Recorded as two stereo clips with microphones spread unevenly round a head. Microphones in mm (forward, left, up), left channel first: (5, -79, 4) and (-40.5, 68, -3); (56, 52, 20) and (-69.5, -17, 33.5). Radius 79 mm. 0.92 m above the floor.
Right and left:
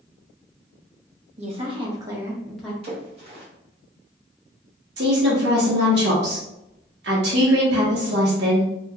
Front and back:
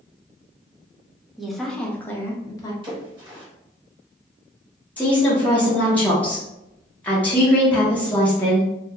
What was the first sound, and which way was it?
A woman speaking, 115° left.